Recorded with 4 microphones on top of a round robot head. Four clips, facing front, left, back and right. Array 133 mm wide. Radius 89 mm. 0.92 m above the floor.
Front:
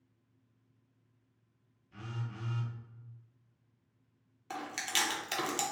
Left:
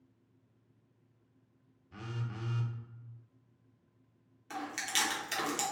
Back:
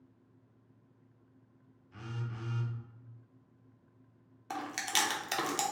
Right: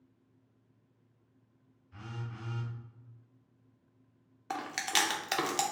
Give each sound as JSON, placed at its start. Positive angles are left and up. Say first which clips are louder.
{"t": 1.9, "sound": "a phone buzzing", "louder": "left 2 dB, back 1 dB", "azimuth_deg": 100, "distance_m": 0.6}
{"t": 4.5, "sound": "chewing", "louder": "right 4 dB, back 2 dB", "azimuth_deg": -100, "distance_m": 0.6}